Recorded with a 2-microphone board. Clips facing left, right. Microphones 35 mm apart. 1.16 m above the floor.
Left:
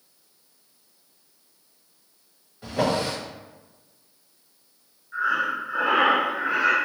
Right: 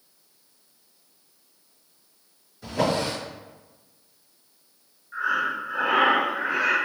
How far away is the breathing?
About 1.5 m.